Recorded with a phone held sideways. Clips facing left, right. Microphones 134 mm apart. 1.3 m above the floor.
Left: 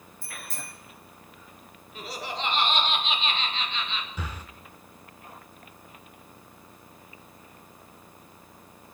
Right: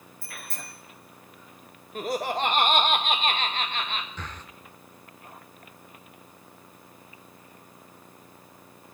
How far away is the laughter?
About 0.7 m.